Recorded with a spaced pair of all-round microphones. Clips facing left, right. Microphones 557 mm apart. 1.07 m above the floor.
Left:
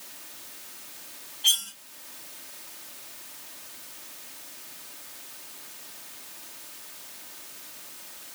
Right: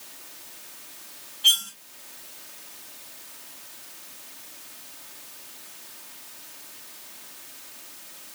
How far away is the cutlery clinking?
About 1.2 m.